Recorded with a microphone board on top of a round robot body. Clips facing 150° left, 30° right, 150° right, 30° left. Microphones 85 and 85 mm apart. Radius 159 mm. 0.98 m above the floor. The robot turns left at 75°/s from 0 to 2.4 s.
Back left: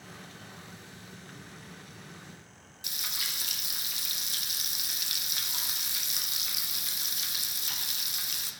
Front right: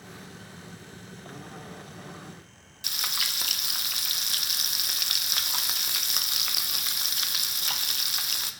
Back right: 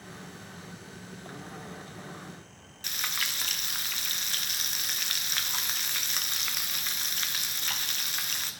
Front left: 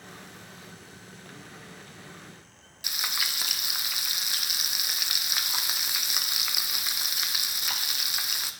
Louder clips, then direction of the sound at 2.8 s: Front right 6 dB, front left 1 dB; 50° right.